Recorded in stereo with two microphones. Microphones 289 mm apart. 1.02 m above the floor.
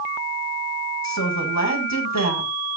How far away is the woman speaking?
About 5.5 m.